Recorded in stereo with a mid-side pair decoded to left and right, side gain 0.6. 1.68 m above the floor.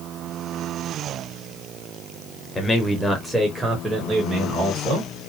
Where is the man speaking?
25° left, 1.0 m; by 5.1 s 40° right, 1.6 m.